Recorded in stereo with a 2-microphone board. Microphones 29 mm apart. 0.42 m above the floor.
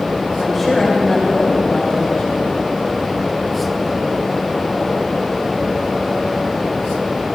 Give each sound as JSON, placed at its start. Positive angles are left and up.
{"t": 0.4, "sound": "a woman speaking", "side_deg": 0, "distance_m": 1.9}